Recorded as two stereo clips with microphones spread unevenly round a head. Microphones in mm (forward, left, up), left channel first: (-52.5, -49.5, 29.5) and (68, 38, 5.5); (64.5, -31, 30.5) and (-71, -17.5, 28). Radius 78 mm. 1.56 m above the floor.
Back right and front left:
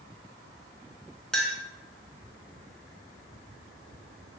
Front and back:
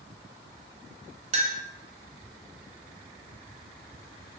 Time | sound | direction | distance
1.3 | a clink | 145° left | 0.5 m